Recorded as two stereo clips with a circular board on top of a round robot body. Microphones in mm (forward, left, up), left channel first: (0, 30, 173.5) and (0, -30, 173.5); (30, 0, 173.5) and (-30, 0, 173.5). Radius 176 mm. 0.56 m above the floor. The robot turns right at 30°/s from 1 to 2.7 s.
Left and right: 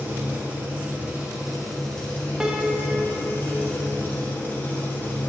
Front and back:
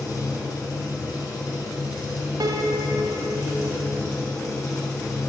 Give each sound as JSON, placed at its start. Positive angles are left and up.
{"t": 0.0, "sound": "an engine running", "azimuth_deg": -20, "distance_m": 1.6}
{"t": 2.4, "sound": "a piano", "azimuth_deg": -170, "distance_m": 0.7}